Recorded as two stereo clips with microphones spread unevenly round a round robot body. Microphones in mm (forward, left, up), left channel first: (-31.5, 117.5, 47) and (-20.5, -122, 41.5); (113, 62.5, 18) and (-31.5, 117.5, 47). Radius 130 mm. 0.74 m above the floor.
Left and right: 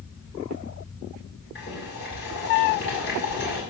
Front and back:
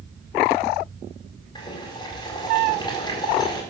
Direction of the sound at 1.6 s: 40° left.